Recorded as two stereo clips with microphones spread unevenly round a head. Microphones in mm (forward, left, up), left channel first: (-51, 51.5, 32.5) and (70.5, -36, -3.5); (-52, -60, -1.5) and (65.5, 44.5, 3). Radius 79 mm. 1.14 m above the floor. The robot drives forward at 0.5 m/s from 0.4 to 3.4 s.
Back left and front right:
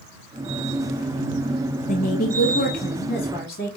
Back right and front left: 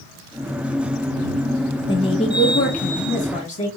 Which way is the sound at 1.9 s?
175° left.